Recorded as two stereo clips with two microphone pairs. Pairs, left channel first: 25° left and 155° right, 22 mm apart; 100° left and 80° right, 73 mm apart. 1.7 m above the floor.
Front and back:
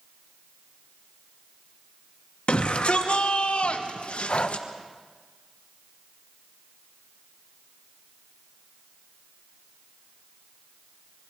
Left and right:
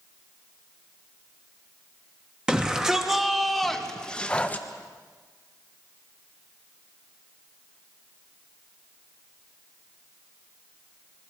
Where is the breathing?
30° left, 1.1 m.